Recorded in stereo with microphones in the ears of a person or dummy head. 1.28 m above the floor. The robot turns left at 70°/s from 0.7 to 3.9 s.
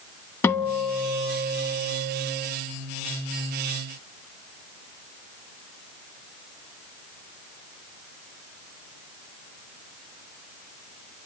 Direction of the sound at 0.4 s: 15° left.